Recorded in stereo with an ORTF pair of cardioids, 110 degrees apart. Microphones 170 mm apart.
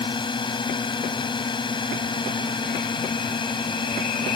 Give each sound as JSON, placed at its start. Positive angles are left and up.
{"t": 0.0, "sound": "a drone", "azimuth_deg": 30}